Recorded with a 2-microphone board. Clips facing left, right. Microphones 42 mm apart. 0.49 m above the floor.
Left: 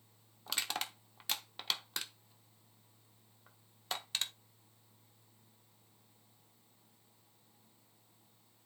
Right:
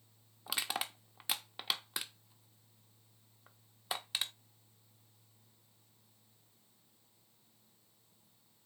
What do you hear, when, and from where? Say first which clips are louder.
0.5 s crushing: right 1 dB; 10° right (ahead or behind), 0.9 m